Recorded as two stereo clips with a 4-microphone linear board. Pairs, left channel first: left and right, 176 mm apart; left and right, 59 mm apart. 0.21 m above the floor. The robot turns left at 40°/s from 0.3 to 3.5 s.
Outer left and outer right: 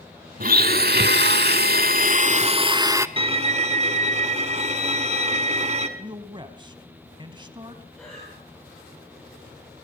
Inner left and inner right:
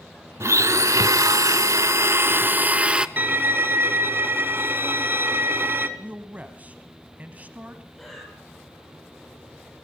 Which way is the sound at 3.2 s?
30° right (ahead or behind).